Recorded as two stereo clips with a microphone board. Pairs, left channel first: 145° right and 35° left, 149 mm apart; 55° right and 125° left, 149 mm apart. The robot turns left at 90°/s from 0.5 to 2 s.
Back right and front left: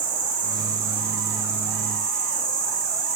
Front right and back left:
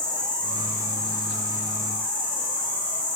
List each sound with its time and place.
0.0 s an insect: 15° left, 0.9 m; by 3.2 s 120° right, 0.9 m